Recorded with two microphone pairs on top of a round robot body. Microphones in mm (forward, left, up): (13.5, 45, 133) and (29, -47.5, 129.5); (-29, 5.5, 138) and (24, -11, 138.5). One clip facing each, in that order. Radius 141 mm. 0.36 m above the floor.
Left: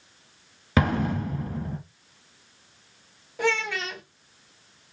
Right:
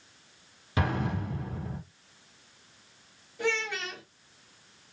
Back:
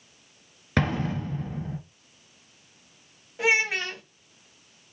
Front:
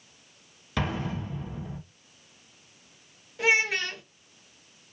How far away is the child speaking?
About 2.5 m.